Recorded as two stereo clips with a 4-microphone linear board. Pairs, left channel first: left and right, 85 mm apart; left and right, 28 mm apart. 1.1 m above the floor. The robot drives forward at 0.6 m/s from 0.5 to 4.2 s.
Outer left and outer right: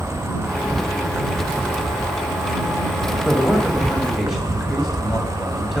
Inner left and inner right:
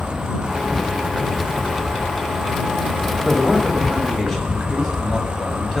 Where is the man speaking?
5° right (ahead or behind), 5.5 m.